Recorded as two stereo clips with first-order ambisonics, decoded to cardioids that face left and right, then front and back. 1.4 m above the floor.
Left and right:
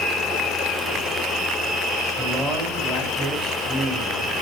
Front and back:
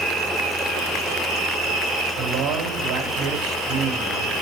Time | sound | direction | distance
2.2 | a man speaking | 170° right | 5 m